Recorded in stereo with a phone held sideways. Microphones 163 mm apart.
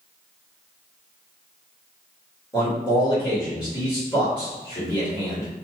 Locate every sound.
2.5 s a man speaking: 25° left (ahead or behind), 1.4 m